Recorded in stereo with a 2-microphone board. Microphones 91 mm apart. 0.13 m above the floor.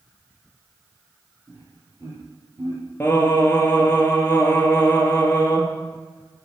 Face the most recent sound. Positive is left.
turn(degrees=20)  # may be behind; listen again after turning